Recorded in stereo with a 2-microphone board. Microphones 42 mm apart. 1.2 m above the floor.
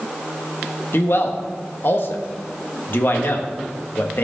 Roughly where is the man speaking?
Left.